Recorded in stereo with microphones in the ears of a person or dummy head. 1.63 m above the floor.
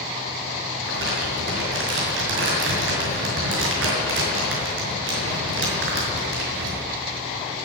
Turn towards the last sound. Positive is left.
turn(degrees=-75)  # may be behind; listen again after turning